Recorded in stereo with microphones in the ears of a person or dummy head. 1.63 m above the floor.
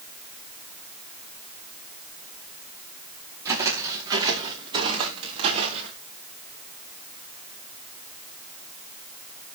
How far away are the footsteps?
About 5 m.